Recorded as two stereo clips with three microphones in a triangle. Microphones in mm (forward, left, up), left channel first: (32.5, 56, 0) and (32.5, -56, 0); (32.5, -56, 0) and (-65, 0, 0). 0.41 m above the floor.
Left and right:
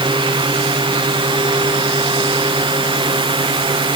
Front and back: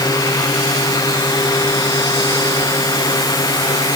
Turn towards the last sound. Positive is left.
No sound to turn to.